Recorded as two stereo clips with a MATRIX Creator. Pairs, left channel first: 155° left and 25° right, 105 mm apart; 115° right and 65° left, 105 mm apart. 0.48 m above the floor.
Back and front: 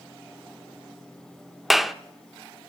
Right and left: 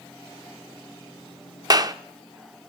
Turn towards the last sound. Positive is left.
turn(degrees=65)